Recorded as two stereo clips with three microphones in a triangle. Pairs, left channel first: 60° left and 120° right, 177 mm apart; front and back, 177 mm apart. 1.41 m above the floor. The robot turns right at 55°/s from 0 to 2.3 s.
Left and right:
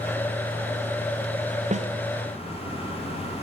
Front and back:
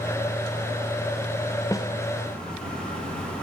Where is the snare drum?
70° right, 0.9 m; by 1.9 s 60° right, 0.9 m.